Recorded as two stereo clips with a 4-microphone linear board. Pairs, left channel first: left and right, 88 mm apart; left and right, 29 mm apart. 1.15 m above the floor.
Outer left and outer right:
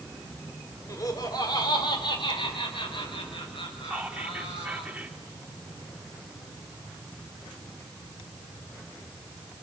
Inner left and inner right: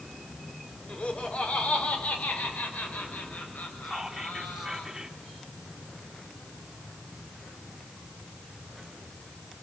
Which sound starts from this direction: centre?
Whispering, at 3.8 s.